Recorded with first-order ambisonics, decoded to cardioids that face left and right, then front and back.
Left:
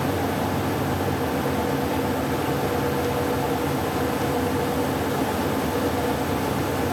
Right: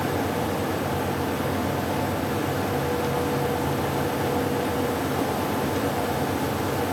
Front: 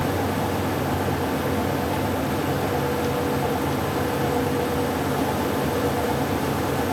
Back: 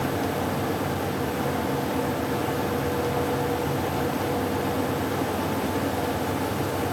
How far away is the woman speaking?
No woman speaking in this recording.